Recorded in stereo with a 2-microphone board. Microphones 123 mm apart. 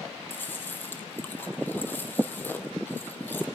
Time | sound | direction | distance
0.3 | chewing | 15° left (ahead or behind) | 3 m